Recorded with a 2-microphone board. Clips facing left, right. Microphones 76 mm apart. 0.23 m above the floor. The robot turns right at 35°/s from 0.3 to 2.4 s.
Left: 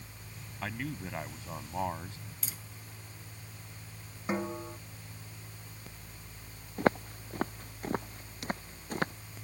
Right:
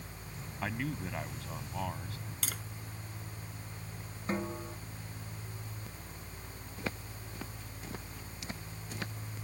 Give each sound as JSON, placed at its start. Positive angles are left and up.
{"t": 0.6, "sound": "a man speaking", "azimuth_deg": -10}
{"t": 2.4, "sound": "tapping", "side_deg": -70}
{"t": 4.3, "sound": "a snare drum", "side_deg": 15}
{"t": 6.8, "sound": "footsteps", "side_deg": 50}